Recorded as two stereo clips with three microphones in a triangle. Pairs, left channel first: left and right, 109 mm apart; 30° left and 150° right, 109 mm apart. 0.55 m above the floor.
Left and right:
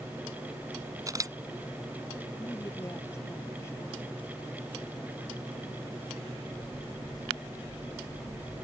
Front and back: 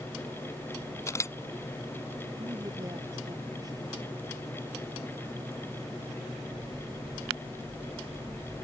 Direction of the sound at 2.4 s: 155° left.